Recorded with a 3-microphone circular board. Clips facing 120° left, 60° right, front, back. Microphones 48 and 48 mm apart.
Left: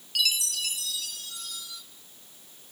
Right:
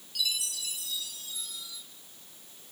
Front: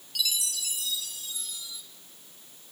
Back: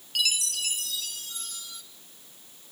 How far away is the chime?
About 1.2 m.